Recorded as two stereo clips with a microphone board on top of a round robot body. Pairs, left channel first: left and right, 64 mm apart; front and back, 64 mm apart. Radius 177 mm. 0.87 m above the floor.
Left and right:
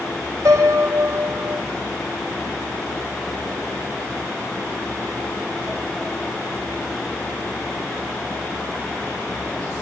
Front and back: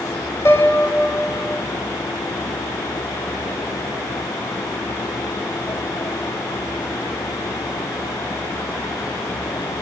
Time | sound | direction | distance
0.5 | a piano | 45° right | 4.5 m